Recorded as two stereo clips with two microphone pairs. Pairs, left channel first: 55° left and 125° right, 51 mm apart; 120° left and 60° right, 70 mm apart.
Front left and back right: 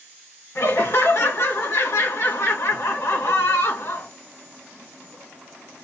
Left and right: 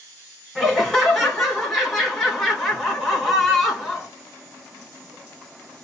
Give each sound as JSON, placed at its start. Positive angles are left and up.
{"t": 0.6, "sound": "laughter", "azimuth_deg": 40, "distance_m": 2.0}